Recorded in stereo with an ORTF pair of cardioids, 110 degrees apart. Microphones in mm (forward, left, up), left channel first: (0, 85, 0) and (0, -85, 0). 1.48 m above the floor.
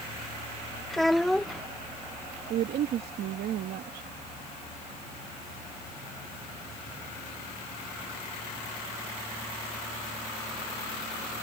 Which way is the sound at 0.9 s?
Straight ahead.